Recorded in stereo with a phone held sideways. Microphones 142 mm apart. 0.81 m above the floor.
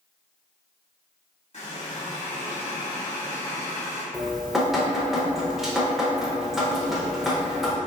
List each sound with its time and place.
1.5 s a running tap: 55° left (ahead or behind), 1.1 m
4.1 s dripping: centre (ahead or behind), 0.5 m